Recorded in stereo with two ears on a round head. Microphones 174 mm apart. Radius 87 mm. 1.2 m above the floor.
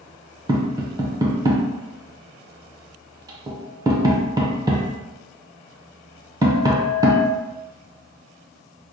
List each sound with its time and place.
0.5 s tapping: 20° right (ahead or behind), 0.5 m